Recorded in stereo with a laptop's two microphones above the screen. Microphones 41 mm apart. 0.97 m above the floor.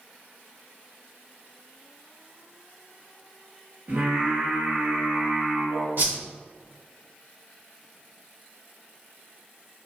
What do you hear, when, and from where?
3.9 s singing: 40° right (ahead or behind), 1.1 m
6.0 s a whoosh: 50° right (ahead or behind), 1.0 m